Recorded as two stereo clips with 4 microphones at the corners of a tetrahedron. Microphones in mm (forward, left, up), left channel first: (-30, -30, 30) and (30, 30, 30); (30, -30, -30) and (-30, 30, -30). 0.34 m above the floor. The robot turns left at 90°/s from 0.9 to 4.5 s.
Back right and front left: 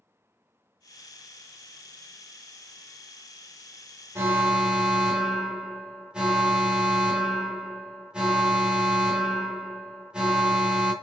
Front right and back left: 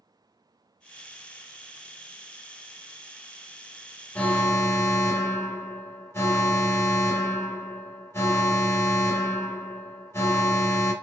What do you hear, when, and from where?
4.2 s an alarm: 5° left, 0.6 m; by 10.9 s 25° right, 0.6 m